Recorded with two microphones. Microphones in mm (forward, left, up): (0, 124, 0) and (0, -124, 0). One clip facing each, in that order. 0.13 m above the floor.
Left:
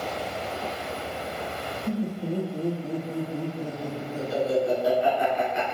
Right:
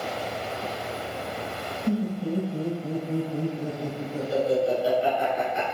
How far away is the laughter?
About 1.9 m.